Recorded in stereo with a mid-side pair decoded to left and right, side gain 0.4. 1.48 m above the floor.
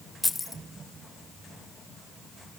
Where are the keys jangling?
20° left, 1.6 m.